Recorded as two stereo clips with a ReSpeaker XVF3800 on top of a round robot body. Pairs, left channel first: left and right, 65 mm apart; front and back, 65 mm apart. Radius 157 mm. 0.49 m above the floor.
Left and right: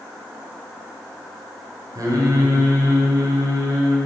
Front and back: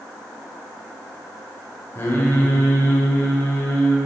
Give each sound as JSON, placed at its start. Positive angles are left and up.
{"t": 1.9, "sound": "singing", "azimuth_deg": -55, "distance_m": 3.0}